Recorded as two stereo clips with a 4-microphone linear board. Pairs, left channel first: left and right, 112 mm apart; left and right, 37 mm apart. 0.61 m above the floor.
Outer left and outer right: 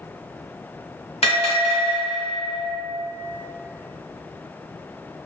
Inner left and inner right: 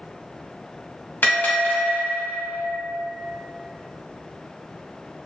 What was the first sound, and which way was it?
A bell, 70° left (ahead or behind).